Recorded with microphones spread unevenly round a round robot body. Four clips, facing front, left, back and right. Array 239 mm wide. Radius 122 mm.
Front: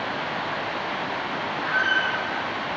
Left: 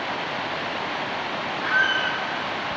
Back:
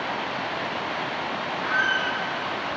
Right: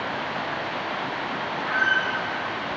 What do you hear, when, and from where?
1.6 s a squeak: 130° left, 1.8 m